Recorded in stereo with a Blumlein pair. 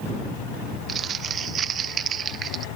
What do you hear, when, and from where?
0.9 s crumpling: 25° right